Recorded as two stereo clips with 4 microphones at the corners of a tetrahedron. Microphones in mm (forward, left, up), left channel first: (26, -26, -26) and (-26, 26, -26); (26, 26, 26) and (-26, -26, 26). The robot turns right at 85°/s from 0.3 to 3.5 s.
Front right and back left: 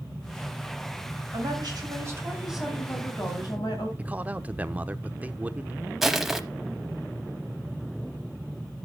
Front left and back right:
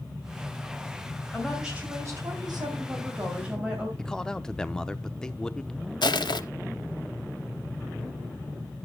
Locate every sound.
1.3 s a woman speaking: 120° left, 3 m; by 3.9 s 55° right, 3 m
4.0 s a man speaking: 110° left, 0.7 m
6.0 s crushing: 50° left, 0.9 m